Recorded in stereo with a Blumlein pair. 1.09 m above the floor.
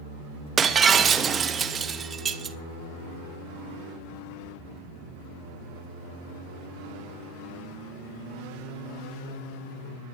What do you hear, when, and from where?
0.6 s breaking glass: 20° right, 0.6 m